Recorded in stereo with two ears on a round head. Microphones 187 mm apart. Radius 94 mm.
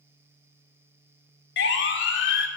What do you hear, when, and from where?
1.6 s a siren: 55° left (ahead or behind), 2.5 m